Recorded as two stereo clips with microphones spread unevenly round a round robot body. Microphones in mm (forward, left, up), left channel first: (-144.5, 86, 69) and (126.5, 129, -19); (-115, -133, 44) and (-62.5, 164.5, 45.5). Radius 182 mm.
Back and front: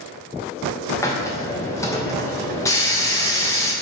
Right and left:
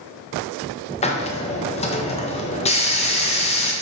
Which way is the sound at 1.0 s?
65° right.